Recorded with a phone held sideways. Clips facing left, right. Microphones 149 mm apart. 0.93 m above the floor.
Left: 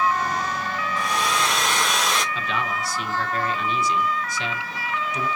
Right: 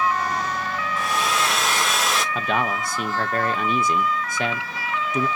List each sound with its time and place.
1.0 s a hair dryer: 5° right (ahead or behind), 1.1 m
2.4 s a man speaking: 55° right (ahead or behind), 1.0 m